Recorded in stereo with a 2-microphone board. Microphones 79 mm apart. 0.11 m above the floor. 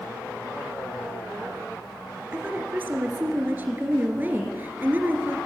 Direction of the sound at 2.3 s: 20° right (ahead or behind).